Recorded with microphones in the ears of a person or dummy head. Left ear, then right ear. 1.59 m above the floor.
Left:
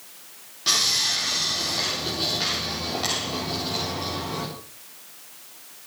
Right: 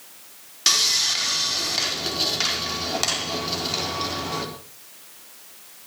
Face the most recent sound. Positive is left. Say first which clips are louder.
# right 2 dB
turn(degrees=-70)  # may be behind; listen again after turning